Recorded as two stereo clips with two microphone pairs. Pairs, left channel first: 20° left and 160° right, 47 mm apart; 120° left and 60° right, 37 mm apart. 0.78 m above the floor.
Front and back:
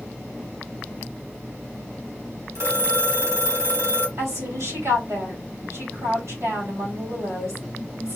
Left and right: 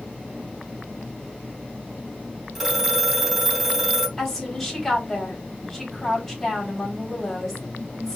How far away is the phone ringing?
About 3 m.